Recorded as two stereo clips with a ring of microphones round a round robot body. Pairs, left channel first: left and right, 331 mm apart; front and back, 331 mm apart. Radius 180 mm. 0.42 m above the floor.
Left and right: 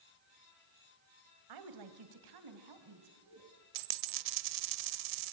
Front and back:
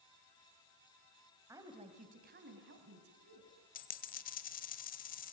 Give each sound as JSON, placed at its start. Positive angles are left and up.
{"t": 1.5, "sound": "a woman speaking", "azimuth_deg": -100, "distance_m": 2.5}
{"t": 3.8, "sound": "a dropped coin", "azimuth_deg": -65, "distance_m": 1.0}